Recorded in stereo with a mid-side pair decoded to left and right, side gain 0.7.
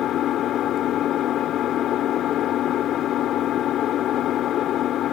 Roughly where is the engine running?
Ahead left.